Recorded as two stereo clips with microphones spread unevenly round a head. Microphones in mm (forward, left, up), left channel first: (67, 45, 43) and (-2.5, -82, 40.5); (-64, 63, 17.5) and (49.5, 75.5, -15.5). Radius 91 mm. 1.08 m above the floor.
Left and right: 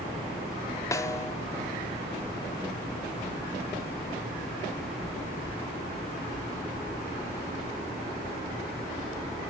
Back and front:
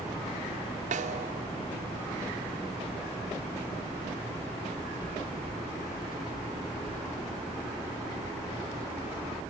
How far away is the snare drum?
About 2 m.